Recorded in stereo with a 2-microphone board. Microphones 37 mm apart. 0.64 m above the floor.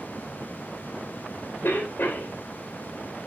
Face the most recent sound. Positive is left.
turn(degrees=70)  # may be behind; listen again after turning